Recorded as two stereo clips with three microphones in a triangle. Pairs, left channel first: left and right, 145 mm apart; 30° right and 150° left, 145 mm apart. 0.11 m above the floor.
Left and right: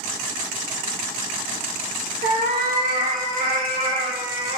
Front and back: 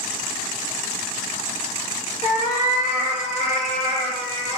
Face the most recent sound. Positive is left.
turn(degrees=-75)